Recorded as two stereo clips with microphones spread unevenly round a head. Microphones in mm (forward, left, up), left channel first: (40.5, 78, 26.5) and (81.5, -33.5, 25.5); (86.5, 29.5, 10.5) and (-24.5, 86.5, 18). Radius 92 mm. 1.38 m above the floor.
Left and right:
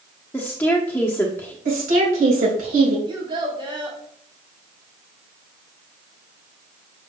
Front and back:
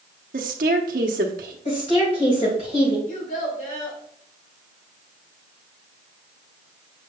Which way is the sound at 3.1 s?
25° right.